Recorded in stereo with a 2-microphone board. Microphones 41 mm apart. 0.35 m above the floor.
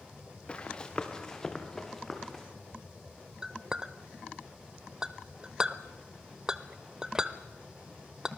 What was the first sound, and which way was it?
Running footsteps, 25° left (ahead or behind).